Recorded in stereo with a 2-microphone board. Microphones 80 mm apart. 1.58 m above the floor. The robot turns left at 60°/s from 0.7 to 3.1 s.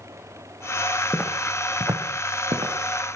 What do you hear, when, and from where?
1.1 s footsteps: 15° left (ahead or behind), 3.5 m; by 2.7 s 70° right (ahead or behind), 5 m